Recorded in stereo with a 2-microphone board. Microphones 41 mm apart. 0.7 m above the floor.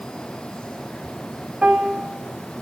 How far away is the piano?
About 0.6 m.